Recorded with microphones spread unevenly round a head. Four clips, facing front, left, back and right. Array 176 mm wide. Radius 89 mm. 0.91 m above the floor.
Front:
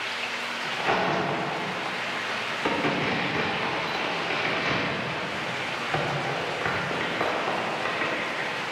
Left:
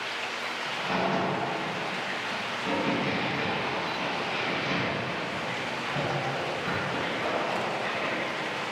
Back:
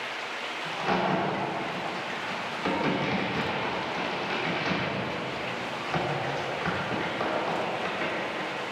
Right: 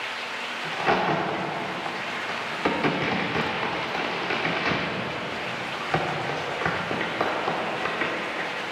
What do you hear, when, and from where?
0.6 s a crack: 75° right, 2 m